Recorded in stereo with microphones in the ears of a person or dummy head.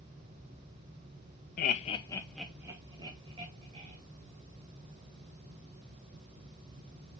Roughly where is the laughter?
Left.